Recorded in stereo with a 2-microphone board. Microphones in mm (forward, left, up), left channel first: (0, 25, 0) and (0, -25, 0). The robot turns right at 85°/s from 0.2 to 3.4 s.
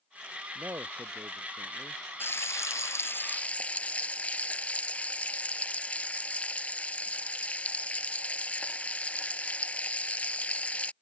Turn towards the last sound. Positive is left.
turn(degrees=155)